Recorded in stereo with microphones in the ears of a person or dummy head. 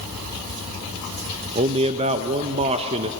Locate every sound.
1.6 s a man speaking: 30° right (ahead or behind), 0.9 m